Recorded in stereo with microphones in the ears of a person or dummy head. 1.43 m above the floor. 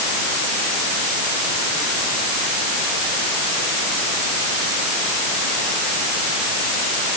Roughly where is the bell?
I don't hear a bell.